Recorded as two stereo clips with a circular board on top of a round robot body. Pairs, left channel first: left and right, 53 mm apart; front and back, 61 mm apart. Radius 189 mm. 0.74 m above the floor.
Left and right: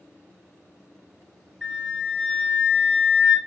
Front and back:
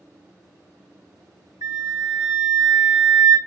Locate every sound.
1.6 s a flute: 165° left, 1.0 m